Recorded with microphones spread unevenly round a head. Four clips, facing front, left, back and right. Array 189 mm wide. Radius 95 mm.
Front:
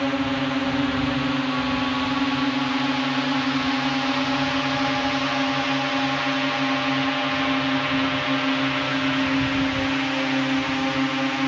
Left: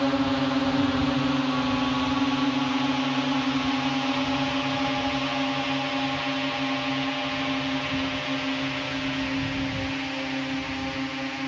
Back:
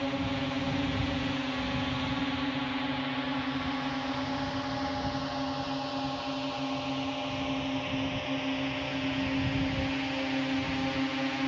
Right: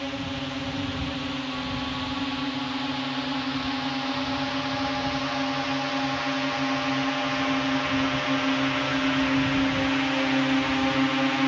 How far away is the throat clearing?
No throat clearing in this recording.